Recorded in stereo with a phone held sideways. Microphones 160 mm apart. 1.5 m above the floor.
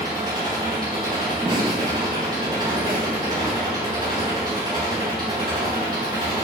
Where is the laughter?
30° right (ahead or behind), 0.7 m.